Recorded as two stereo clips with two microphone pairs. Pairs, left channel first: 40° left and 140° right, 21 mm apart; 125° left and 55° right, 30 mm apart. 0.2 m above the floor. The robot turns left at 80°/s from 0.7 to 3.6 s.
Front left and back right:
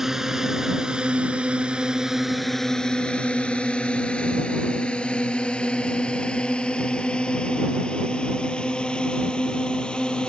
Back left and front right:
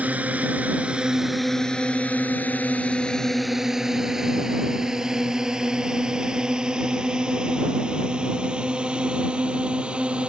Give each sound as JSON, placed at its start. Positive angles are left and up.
{"t": 0.0, "sound": "a drone", "azimuth_deg": -80}